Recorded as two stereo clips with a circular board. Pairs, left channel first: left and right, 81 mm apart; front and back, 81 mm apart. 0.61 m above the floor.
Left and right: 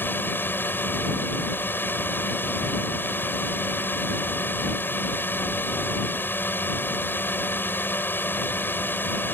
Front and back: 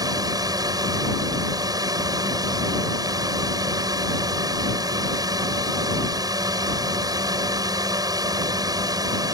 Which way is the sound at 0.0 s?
150° left.